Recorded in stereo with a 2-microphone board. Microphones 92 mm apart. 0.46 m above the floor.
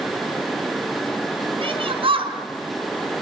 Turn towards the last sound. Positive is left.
turn(degrees=-80)